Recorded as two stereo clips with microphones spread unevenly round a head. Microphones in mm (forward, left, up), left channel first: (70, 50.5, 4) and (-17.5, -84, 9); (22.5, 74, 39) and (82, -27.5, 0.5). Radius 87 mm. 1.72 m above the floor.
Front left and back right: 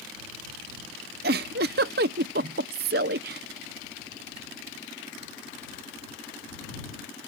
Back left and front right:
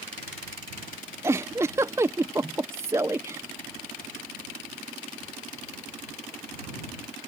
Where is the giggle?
145° right.